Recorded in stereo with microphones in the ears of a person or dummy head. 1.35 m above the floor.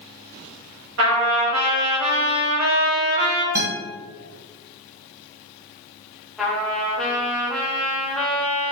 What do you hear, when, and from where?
1.0 s a trumpet: 70° right (ahead or behind), 1.1 m
3.5 s a guitar: 15° right (ahead or behind), 1.6 m
6.4 s a trumpet: 5° left (ahead or behind), 0.8 m